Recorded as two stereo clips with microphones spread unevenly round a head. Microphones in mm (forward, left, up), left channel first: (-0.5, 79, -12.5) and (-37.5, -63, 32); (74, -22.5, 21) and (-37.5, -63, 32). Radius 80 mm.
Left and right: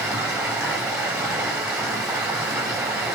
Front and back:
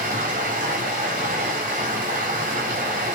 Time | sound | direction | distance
0.0 | running water | straight behind | 3.5 m